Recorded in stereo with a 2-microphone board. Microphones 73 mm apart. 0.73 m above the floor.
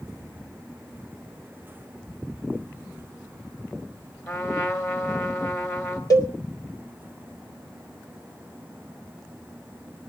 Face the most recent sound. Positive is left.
turn(degrees=50)  # may be behind; listen again after turning